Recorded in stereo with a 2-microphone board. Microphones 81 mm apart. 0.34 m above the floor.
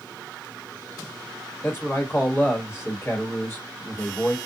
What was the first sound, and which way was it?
A man speaking, 30° left (ahead or behind).